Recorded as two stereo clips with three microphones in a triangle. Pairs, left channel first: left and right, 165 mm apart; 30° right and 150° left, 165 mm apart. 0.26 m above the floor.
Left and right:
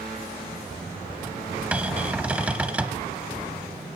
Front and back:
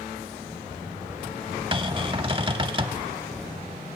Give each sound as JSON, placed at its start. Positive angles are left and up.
{"t": 1.7, "sound": "a cupboard door", "azimuth_deg": -165, "distance_m": 0.6}